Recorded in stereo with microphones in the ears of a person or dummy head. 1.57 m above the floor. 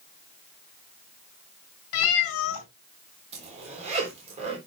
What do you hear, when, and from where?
1.9 s a cat meowing: 65° left (ahead or behind), 2.5 m
3.3 s a zipper: 35° right (ahead or behind), 3.5 m